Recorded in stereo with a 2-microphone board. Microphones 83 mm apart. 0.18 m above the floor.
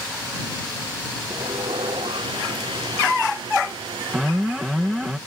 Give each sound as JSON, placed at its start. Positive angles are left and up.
{"t": 1.3, "sound": "sawing", "side_deg": -80}
{"t": 4.1, "sound": "an alarm", "side_deg": -5}